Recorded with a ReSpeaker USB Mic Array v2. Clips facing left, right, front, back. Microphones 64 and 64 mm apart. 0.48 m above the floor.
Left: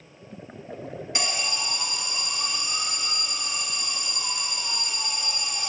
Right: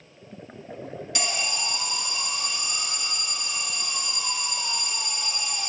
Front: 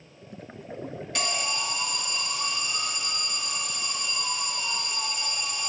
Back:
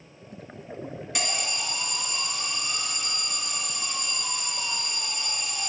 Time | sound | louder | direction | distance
1.1 | an alarm | even, front 2 dB | 115° left | 1.4 m